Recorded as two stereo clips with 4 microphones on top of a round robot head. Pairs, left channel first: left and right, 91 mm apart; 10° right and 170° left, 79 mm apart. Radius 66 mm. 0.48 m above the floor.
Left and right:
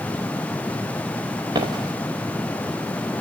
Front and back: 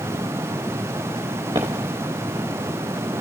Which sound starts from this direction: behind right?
Footsteps, at 1.5 s.